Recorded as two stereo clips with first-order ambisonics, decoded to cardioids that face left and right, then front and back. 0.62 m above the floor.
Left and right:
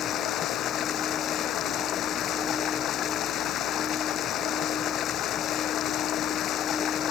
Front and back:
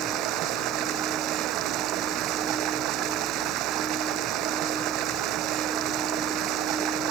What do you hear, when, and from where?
0.0 s running water: 140° left